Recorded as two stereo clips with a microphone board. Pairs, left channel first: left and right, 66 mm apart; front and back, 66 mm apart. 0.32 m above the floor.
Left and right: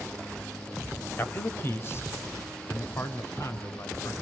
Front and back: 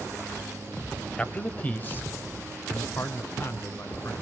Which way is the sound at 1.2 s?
60° left.